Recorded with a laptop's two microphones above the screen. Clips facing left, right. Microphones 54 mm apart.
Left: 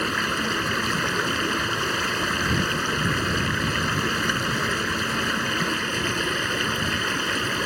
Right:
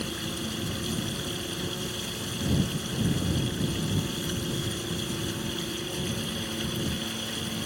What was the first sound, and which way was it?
Running water, 60° left (ahead or behind).